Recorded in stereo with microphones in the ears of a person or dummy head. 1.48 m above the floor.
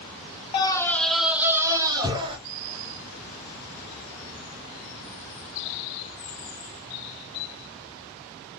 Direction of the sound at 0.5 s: 25° left (ahead or behind).